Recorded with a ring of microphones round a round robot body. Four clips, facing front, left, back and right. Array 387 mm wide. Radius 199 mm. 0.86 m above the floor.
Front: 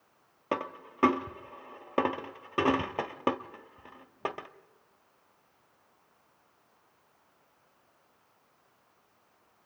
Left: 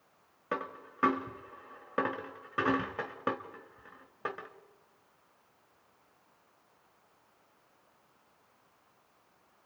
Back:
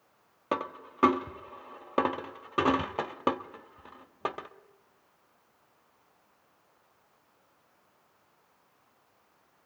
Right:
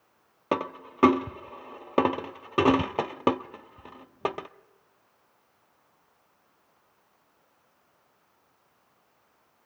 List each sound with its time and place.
0.5 s a dropped coin: 95° right, 0.7 m